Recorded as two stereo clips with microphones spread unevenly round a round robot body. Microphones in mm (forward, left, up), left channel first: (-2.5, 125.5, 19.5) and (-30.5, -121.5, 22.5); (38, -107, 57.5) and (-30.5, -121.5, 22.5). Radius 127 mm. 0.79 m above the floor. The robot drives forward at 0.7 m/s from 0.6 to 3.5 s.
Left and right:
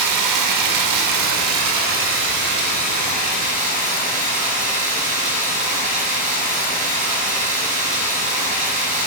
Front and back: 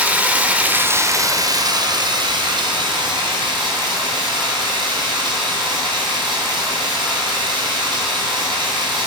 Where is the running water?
85° right, 0.9 m; by 9.1 s 155° right, 2 m.